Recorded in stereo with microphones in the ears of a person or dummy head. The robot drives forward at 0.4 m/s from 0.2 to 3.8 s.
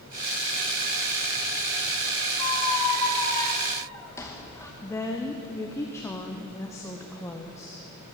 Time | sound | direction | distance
2.4 | a squeak | 15° left (ahead or behind) | 0.7 m
4.8 | a woman speaking | 10° left (ahead or behind) | 0.8 m